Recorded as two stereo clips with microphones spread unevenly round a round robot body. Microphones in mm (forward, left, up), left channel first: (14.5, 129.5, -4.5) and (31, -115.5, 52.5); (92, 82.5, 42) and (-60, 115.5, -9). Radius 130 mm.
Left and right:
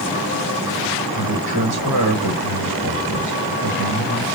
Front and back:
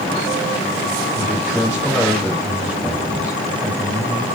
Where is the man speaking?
105° right, 4 m.